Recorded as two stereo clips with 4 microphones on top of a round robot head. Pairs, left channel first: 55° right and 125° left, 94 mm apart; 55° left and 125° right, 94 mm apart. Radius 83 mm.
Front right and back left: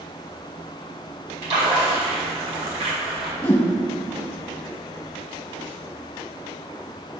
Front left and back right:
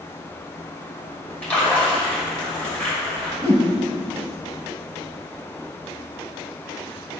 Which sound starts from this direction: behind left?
A splash, at 1.4 s.